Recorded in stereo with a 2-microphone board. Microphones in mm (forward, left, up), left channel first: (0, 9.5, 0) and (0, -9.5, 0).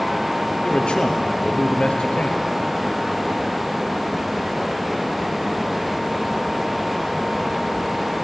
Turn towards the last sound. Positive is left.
turn(degrees=65)  # may be behind; listen again after turning